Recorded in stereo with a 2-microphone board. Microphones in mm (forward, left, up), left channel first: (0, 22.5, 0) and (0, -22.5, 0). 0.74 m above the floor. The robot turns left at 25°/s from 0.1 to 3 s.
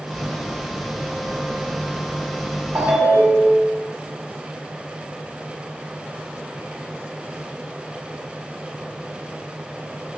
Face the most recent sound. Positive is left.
turn(degrees=-55)  # may be behind; listen again after turning